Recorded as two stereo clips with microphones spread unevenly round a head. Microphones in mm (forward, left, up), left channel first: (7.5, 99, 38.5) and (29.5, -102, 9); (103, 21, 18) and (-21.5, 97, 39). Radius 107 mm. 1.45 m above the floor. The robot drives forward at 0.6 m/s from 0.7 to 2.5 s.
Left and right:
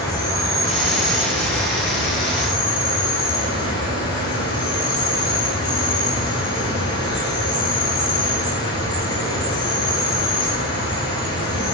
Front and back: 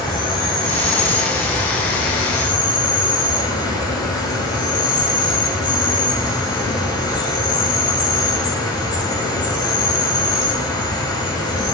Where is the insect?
25° left, 6 m; by 11.8 s 30° left, 5.5 m.